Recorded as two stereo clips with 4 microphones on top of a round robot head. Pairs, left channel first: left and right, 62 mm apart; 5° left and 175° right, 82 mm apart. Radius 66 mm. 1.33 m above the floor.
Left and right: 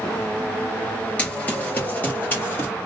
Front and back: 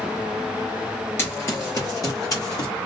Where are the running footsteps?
40° left, 1.4 m.